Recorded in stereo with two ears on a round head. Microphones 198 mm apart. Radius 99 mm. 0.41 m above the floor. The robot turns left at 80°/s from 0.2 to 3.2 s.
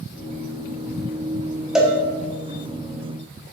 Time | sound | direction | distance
1.8 | a cowbell | centre (ahead or behind) | 0.8 m